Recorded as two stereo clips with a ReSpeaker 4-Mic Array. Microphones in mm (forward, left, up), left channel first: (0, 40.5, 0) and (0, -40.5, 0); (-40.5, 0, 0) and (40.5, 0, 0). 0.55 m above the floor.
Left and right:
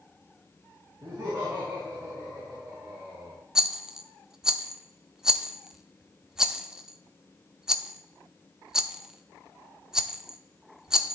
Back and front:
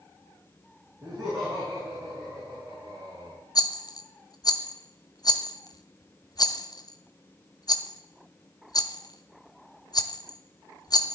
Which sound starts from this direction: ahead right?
Laughter, at 1.0 s.